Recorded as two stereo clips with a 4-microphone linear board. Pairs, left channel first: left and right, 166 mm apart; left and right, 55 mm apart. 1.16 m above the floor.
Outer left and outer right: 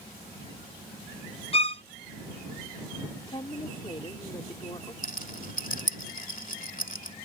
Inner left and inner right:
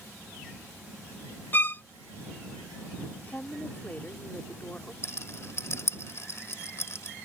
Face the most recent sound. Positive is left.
turn(degrees=55)  # may be behind; listen again after turning